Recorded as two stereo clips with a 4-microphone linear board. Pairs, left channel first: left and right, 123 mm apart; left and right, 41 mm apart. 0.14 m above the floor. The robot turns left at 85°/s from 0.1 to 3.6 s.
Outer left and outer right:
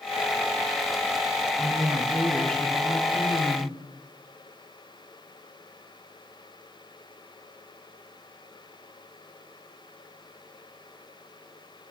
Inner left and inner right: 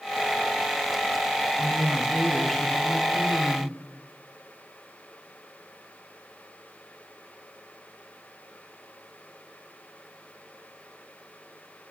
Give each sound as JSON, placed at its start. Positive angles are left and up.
{"t": 1.6, "sound": "a woman speaking", "azimuth_deg": -115, "distance_m": 1.7}